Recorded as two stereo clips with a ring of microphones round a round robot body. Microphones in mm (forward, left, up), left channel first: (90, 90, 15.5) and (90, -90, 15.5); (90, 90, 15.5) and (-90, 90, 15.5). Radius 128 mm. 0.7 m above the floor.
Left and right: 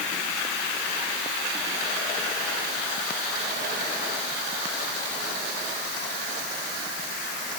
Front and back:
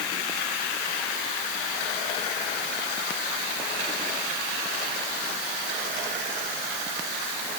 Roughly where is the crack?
I don't hear a crack.